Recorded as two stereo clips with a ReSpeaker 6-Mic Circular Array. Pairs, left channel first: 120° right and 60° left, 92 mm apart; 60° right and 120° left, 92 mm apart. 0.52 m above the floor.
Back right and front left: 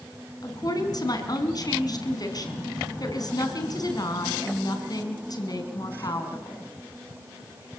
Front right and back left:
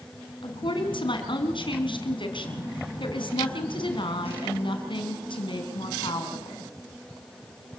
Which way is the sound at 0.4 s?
80° right.